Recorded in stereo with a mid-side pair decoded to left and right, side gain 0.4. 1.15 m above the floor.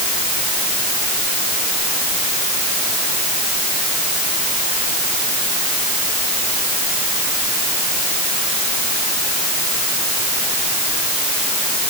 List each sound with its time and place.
Only background noise.